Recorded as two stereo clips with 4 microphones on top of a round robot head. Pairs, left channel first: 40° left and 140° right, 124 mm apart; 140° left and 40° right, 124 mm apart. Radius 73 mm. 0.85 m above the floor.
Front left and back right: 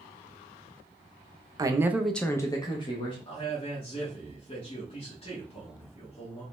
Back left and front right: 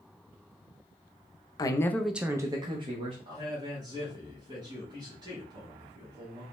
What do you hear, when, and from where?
1.6 s a man speaking: straight behind, 0.6 m; by 3.1 s straight ahead, 1.1 m
3.2 s a man speaking: 10° left, 1.5 m